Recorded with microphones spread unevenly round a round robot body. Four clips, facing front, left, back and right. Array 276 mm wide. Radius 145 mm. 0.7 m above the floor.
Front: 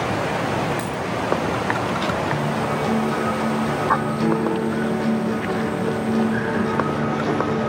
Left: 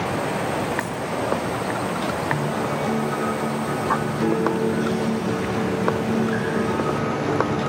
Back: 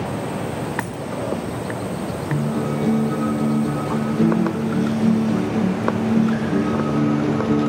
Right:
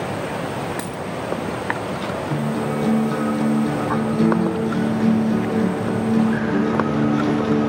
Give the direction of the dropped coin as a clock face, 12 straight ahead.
4 o'clock.